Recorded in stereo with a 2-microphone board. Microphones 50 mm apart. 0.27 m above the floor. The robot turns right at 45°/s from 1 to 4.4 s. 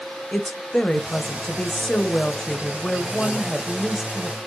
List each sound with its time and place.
0.3 s a woman speaking: 15° left (ahead or behind), 1.0 m; by 4.4 s 10° right (ahead or behind), 1.0 m